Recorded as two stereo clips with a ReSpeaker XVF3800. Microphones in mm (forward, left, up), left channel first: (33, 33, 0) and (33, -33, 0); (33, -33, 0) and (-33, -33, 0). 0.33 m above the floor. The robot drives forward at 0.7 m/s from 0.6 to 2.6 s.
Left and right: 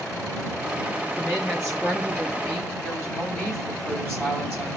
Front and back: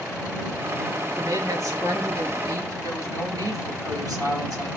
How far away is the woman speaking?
About 4.5 m.